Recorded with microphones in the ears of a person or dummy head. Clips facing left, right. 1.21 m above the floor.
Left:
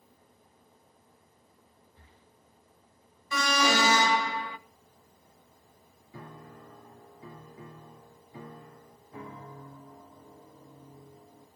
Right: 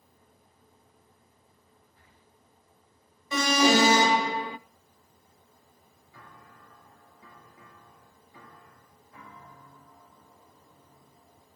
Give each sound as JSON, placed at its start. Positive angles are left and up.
{"t": 2.0, "sound": "breathing", "side_deg": 30, "distance_m": 1.5}
{"t": 3.3, "sound": "an alarm", "side_deg": -20, "distance_m": 0.5}
{"t": 6.1, "sound": "a piano", "side_deg": 25, "distance_m": 0.6}